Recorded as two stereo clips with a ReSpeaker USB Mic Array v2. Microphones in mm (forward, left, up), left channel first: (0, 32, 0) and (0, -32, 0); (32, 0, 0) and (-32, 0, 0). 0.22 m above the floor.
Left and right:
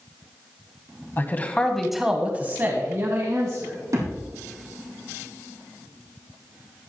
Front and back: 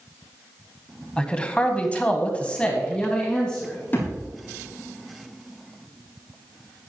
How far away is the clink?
No clink in this recording.